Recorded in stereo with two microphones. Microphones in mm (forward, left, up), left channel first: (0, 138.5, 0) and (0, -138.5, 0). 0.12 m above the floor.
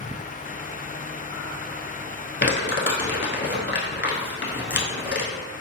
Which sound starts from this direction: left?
Crumpling, at 2.4 s.